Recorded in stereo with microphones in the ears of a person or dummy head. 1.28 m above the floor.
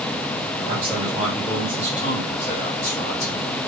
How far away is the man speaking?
About 1.7 m.